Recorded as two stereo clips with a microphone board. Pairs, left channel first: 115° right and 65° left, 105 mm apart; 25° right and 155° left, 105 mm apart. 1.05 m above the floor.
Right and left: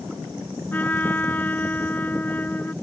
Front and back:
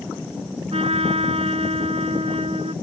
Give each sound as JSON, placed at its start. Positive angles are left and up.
{"t": 0.7, "sound": "a trumpet", "azimuth_deg": 175}